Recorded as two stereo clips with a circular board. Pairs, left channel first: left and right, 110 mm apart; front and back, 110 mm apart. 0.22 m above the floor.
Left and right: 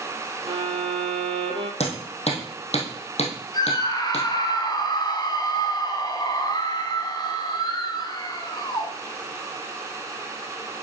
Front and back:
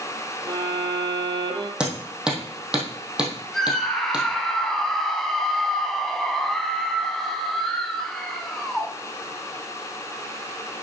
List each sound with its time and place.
0.5 s a violin: 130° right, 1.4 m
1.8 s hammering: 100° left, 2.5 m
3.5 s a scream: 85° left, 1.5 m